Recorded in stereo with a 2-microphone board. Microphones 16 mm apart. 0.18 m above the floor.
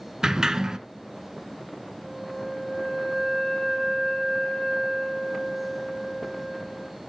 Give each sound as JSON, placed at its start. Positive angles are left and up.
{"t": 0.2, "sound": "a sliding door", "side_deg": -40, "distance_m": 0.6}
{"t": 2.0, "sound": "a flute", "side_deg": 70, "distance_m": 4.0}